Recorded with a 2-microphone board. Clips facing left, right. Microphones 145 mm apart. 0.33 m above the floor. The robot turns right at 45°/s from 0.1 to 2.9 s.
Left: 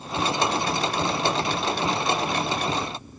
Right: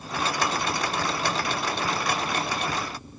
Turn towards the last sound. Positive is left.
No sound to turn to.